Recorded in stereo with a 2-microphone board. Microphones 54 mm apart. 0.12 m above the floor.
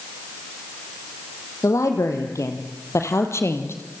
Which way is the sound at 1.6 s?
75° left (ahead or behind).